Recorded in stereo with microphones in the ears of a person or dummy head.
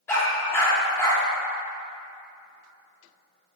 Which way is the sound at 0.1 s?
15° left (ahead or behind).